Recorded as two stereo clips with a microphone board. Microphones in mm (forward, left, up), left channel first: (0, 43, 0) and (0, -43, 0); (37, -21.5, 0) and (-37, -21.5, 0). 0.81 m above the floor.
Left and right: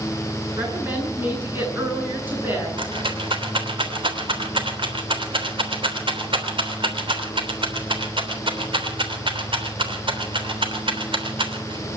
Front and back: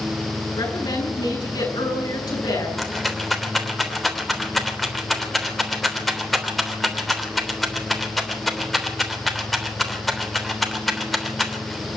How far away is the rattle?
About 3 m.